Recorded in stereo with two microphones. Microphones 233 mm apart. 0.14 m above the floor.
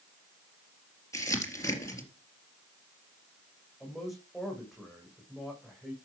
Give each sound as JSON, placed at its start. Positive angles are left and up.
{"t": 1.1, "sound": "crumpling", "side_deg": 15, "distance_m": 3.5}
{"t": 3.8, "sound": "a man speaking", "side_deg": 0, "distance_m": 6.5}